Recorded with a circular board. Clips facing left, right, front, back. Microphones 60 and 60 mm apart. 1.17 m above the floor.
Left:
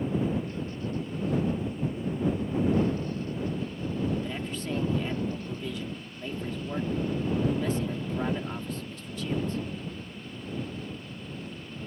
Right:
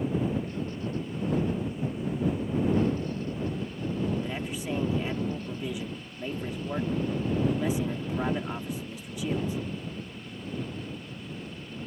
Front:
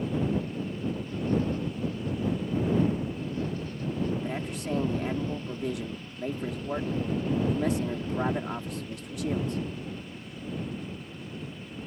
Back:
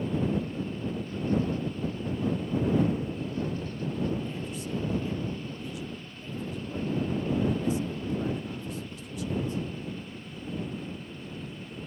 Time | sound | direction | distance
4.2 | a man speaking | 15° right | ?